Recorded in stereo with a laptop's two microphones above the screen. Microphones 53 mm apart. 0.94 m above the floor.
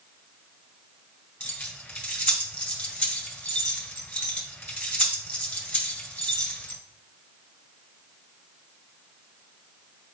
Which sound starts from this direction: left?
Keys jangling, at 1.4 s.